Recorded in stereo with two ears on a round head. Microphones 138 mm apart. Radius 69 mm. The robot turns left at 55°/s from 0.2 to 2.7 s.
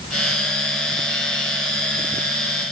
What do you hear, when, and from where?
Only background noise.